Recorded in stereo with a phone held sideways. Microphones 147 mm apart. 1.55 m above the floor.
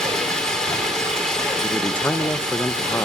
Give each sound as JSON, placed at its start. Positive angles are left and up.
{"t": 0.0, "sound": "running water", "side_deg": 5, "distance_m": 3.5}
{"t": 1.6, "sound": "a man speaking", "side_deg": 15, "distance_m": 0.8}